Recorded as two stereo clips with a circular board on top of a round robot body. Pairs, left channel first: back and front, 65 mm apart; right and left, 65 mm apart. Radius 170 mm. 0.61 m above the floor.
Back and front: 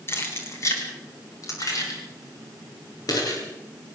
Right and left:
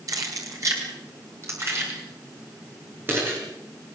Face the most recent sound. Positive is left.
turn(degrees=150)